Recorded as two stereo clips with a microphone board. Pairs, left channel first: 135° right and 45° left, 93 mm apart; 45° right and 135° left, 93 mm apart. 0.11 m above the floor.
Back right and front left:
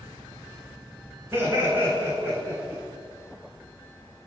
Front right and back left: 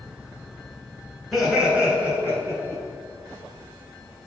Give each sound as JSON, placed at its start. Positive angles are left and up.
{"t": 1.3, "sound": "laughter", "azimuth_deg": 40, "distance_m": 1.3}